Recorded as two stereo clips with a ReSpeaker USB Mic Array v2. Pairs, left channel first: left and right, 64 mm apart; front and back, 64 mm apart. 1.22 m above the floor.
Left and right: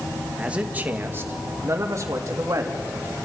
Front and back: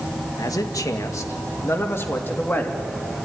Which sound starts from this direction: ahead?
A man speaking, at 0.4 s.